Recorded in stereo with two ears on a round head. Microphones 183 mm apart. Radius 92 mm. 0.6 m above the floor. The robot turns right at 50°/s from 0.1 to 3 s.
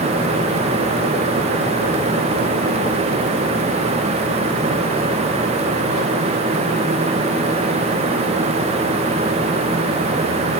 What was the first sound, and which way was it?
Only background noise.